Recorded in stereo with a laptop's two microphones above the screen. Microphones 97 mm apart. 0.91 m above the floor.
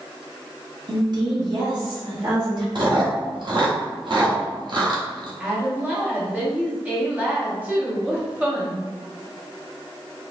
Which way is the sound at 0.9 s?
45° right (ahead or behind).